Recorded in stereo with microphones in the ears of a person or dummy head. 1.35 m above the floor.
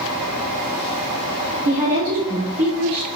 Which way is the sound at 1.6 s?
50° right (ahead or behind).